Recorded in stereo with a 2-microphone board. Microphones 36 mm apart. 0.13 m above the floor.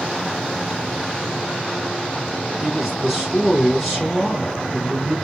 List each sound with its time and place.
2.6 s a man speaking: 5° left (ahead or behind), 2 m